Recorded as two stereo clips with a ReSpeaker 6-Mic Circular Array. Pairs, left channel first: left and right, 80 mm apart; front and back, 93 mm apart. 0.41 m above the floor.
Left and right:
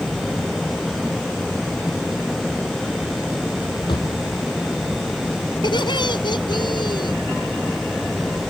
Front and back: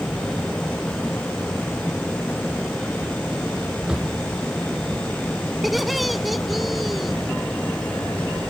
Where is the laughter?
90° left.